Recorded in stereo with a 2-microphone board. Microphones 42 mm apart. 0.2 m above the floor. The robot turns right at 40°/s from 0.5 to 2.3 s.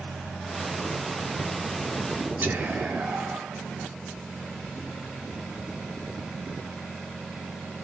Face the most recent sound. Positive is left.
turn(degrees=-35)  # may be behind; listen again after turning